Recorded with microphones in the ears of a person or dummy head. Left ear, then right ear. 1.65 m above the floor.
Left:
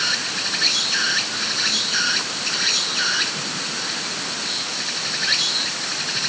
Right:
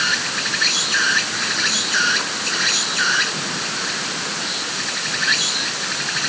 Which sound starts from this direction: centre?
An insect, at 0.0 s.